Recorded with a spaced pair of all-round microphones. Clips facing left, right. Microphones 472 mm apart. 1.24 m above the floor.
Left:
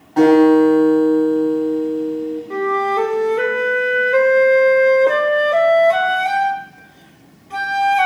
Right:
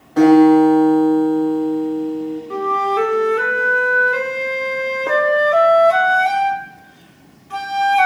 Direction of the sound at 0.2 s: 15° left (ahead or behind).